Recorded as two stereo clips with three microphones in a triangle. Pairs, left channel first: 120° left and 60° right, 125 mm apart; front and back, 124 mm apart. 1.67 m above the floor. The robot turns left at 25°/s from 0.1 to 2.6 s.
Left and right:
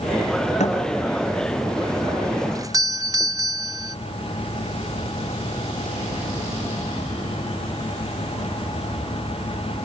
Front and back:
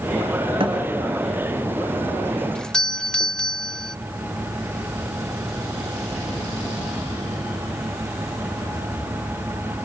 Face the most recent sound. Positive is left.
turn(degrees=-80)